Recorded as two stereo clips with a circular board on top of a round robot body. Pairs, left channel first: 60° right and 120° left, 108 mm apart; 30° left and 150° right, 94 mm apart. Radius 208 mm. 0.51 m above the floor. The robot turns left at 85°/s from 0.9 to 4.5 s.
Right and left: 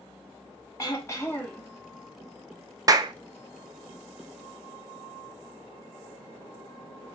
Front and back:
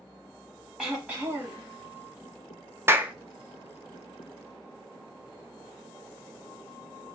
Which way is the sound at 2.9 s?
160° left.